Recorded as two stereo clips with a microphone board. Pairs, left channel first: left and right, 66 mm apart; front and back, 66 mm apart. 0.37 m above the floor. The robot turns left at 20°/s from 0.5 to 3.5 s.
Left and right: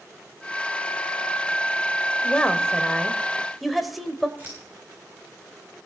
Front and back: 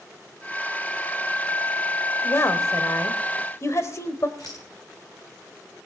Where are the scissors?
25° right, 7 m.